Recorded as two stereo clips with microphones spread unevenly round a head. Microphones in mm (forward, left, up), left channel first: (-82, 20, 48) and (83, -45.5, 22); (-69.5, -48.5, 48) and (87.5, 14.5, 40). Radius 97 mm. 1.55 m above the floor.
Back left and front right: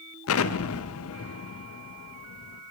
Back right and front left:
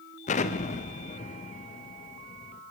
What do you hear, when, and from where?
0.3 s an explosion: 150° left, 0.5 m